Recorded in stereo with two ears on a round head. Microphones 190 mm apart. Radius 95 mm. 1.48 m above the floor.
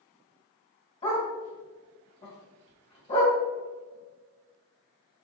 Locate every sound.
1.0 s a dog barking: 25° left (ahead or behind), 2.5 m